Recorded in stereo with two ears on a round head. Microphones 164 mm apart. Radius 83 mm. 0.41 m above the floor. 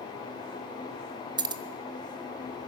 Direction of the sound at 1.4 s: 25° right (ahead or behind).